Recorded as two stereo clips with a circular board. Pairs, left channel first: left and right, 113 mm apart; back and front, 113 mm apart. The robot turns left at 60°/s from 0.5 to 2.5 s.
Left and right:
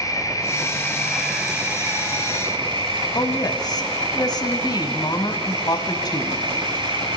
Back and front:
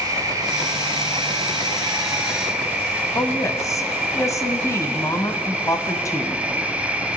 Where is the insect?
45° left, 1.5 m; by 7.2 s 75° right, 1.5 m.